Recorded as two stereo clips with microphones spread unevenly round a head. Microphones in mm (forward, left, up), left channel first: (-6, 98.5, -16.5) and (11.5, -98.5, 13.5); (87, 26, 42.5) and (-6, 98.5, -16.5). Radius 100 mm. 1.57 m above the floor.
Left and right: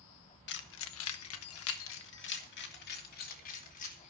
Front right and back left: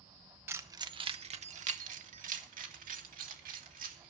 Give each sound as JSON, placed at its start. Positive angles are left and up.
{"t": 0.5, "sound": "keys jangling", "azimuth_deg": 60, "distance_m": 1.1}